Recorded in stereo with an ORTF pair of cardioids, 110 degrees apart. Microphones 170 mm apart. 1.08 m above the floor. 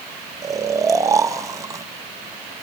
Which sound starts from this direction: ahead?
Snoring, at 0.4 s.